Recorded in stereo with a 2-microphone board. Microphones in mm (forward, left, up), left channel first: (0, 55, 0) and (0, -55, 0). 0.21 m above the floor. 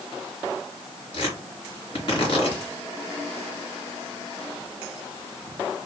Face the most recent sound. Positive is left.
turn(degrees=50)  # may be behind; listen again after turning